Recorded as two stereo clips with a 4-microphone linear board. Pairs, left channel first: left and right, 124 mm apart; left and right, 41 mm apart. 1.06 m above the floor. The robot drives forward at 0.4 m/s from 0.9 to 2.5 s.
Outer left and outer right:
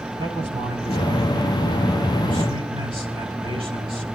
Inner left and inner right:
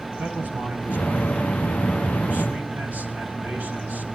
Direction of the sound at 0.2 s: 50° right (ahead or behind).